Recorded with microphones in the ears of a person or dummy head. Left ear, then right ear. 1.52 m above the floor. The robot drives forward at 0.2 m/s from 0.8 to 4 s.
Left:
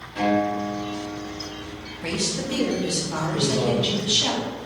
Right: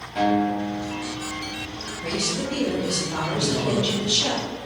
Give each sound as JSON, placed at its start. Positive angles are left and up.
{"t": 0.1, "sound": "a guitar", "side_deg": -15, "distance_m": 0.7}
{"t": 2.0, "sound": "a woman speaking", "side_deg": 25, "distance_m": 0.6}
{"t": 3.3, "sound": "a man speaking", "side_deg": -5, "distance_m": 0.6}